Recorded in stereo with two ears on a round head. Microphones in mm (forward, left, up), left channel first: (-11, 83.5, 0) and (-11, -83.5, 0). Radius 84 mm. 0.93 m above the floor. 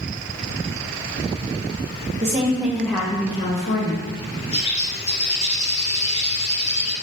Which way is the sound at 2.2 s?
35° right (ahead or behind).